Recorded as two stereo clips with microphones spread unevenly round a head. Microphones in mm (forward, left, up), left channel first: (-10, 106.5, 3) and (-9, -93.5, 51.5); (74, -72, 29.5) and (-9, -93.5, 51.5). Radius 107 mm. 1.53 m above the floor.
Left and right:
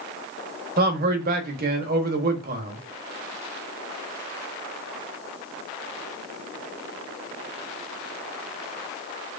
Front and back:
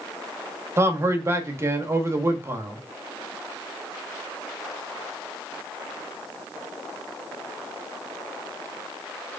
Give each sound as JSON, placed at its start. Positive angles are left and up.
{"t": 0.8, "sound": "a man speaking", "azimuth_deg": -120, "distance_m": 0.9}